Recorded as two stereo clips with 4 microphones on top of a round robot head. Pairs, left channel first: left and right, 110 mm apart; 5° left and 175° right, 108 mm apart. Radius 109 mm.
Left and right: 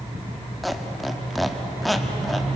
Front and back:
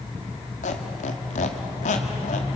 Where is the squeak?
Straight ahead, 1.4 m.